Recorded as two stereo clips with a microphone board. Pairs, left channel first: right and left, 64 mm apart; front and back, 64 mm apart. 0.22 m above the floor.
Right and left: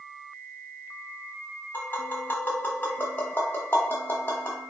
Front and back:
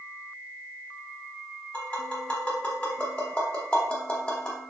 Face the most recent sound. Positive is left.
turn(degrees=-60)